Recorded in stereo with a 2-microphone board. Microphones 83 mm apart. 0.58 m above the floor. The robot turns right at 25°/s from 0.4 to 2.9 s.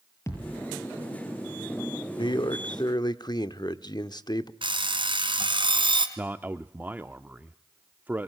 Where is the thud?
35° left (ahead or behind), 7 m; by 0.7 s 40° left (ahead or behind), 7 m.